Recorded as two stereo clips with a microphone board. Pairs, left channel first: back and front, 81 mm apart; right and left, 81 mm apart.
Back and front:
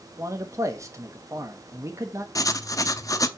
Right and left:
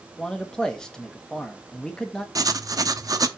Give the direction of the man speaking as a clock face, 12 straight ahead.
12 o'clock.